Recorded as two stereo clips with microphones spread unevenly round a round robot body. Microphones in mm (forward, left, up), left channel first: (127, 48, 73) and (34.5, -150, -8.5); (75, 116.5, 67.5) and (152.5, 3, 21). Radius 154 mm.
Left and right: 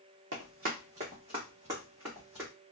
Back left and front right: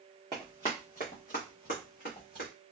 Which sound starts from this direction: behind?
Running footsteps, at 0.3 s.